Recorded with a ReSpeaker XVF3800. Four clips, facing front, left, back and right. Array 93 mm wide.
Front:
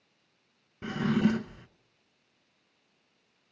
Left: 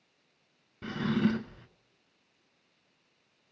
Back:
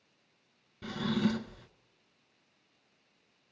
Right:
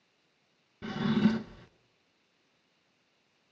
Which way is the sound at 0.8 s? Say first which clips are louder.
Right 1 dB, front 4 dB; 20° left.